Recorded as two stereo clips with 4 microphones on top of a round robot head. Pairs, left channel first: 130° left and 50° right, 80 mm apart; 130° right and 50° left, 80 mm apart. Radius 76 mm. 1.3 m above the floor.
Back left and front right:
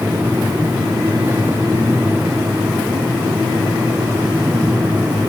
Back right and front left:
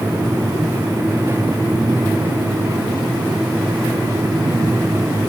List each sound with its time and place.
Only background noise.